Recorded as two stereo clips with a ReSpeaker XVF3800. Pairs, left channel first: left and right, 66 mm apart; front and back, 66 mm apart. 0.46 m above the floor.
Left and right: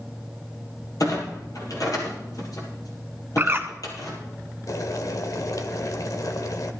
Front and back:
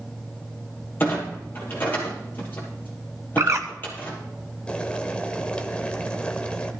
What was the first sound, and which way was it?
A clunk, 60° left.